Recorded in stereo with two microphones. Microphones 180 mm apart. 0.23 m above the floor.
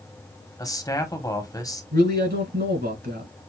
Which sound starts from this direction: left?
A man speaking, at 0.6 s.